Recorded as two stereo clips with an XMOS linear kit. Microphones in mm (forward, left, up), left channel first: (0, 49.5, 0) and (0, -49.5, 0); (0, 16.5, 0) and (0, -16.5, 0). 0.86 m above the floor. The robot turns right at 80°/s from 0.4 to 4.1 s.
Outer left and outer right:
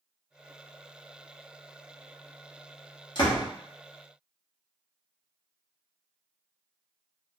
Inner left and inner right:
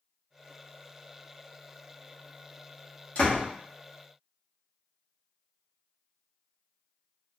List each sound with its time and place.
3.1 s a door slam: 50° left (ahead or behind), 1.0 m; by 3.5 s 70° left (ahead or behind), 1.0 m